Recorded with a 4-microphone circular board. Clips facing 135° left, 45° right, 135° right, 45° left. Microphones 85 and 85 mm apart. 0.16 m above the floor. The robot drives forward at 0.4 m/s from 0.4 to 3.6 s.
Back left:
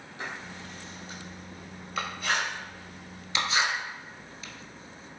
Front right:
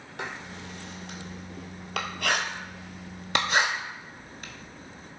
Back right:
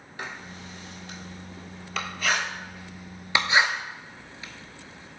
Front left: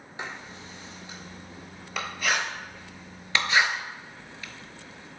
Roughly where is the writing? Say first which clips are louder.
Front right 2 dB, even; ahead right.